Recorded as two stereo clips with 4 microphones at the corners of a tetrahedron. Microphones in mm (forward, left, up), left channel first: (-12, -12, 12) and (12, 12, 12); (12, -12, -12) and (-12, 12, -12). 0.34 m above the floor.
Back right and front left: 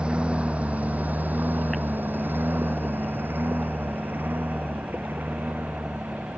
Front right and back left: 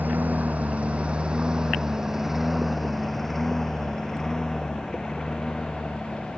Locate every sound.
0.0 s a lawn mower: 105° left; by 6.4 s 15° left